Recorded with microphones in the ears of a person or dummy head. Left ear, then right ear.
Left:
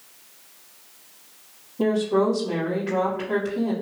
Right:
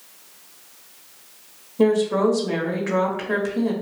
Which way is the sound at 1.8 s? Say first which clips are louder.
Right 3 dB; 65° right (ahead or behind).